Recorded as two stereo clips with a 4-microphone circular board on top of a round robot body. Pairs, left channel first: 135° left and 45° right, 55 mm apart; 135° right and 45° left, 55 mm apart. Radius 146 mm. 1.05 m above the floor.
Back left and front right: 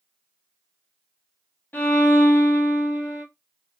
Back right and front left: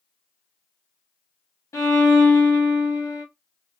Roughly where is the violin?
Behind.